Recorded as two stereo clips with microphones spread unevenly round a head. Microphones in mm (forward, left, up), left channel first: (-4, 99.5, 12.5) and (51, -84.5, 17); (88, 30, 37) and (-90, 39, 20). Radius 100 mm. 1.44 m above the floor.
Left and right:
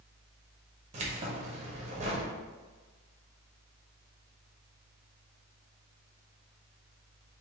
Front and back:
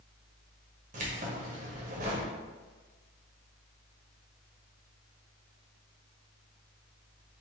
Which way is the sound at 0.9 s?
130° right.